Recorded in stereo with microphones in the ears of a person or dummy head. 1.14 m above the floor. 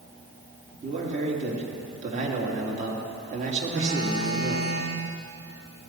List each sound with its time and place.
0.8 s a man speaking: 40° right (ahead or behind), 1.8 m
3.7 s a phone buzzing: 45° right (ahead or behind), 1.6 m